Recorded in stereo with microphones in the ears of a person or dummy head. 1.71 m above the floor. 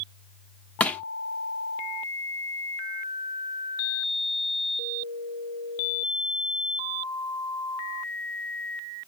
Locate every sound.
0.8 s crushing: 5° left (ahead or behind), 0.9 m